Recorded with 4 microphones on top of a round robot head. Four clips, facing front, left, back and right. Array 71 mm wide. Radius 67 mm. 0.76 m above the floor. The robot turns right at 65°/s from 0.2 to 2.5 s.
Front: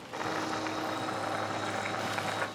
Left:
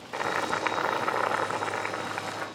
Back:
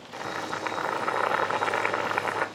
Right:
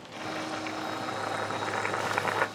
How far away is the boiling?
About 3 m.